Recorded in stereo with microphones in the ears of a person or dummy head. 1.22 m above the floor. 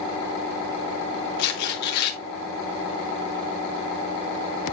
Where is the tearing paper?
55° left (ahead or behind), 2 m.